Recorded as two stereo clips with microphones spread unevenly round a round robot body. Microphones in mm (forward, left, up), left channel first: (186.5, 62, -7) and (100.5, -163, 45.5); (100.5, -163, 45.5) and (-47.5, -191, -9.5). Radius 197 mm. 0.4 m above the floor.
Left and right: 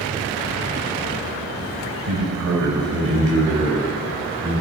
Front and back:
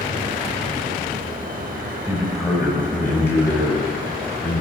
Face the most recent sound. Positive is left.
turn(degrees=-55)